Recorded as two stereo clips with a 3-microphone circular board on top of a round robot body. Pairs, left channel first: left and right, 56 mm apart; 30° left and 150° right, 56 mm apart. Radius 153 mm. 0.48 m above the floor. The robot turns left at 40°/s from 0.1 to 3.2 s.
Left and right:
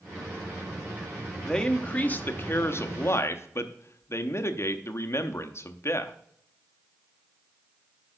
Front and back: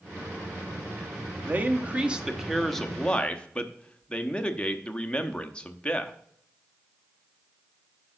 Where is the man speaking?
170° left, 1.2 m; by 6.1 s 95° left, 1.2 m.